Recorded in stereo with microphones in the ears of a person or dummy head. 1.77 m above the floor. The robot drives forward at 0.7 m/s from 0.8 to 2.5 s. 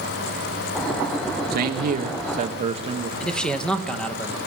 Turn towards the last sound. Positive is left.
turn(degrees=5)  # may be behind; listen again after turning